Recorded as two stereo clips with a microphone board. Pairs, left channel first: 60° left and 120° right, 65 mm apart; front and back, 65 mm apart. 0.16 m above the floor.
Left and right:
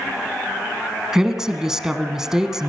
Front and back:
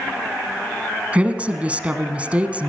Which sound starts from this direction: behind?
A woman speaking, at 1.1 s.